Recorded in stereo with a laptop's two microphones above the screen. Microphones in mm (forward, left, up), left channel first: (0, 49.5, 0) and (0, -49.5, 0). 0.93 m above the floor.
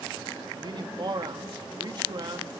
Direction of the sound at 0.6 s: 50° right (ahead or behind).